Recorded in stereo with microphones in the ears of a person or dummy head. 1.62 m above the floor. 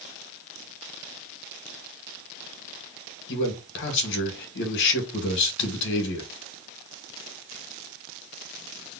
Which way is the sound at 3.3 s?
65° left (ahead or behind).